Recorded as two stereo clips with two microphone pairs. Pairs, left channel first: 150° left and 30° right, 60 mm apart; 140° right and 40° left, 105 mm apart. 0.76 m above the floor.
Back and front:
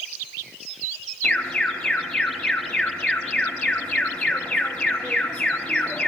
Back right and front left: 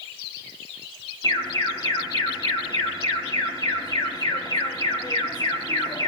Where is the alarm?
150° right, 1.8 m.